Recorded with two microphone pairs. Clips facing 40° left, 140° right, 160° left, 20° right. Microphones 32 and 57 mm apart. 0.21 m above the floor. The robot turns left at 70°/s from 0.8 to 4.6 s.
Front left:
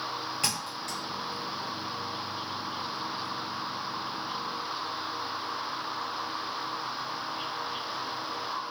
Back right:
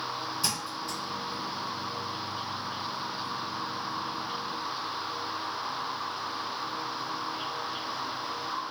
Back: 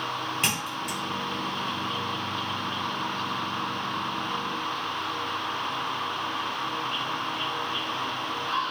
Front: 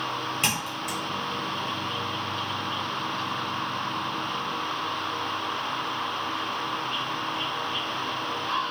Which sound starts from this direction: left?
A thud, at 0.4 s.